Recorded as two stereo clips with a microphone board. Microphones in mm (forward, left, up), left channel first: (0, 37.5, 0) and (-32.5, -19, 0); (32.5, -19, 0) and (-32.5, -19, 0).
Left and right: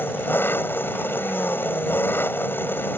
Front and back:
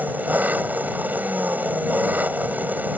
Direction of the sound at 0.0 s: 115° left.